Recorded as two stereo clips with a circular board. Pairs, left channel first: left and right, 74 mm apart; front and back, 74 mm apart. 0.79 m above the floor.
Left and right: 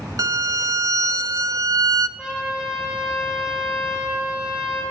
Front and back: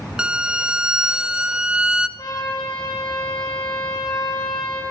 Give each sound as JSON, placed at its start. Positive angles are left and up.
{"t": 0.2, "sound": "a violin", "azimuth_deg": -105, "distance_m": 0.6}
{"t": 2.2, "sound": "a trumpet", "azimuth_deg": -15, "distance_m": 4.0}